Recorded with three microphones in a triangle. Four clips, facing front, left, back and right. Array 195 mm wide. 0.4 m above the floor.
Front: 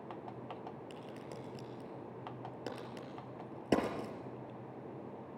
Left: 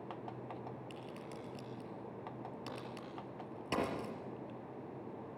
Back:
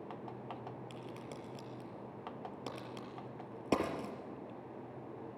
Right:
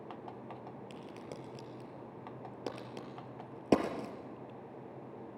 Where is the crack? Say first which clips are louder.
Right 1 dB, even; 80° right, 4 m.